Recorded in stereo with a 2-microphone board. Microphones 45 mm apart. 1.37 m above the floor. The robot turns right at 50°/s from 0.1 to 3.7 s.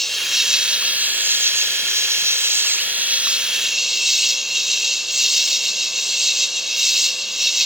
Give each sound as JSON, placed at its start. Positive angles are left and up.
{"t": 0.0, "sound": "an insect", "azimuth_deg": 170}